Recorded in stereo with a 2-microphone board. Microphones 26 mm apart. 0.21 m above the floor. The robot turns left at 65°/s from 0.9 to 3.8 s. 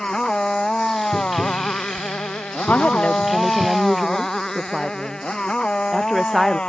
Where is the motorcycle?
30° left (ahead or behind); by 6.7 s 45° left (ahead or behind).